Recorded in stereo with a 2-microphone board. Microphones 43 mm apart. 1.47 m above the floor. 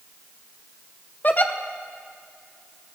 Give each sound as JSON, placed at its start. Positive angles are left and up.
{"t": 1.2, "sound": "a giggle", "side_deg": 40, "distance_m": 0.7}